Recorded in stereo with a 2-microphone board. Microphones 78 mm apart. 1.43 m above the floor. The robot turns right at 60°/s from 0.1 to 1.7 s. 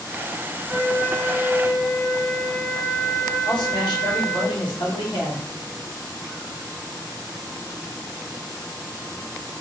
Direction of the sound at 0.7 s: 10° left.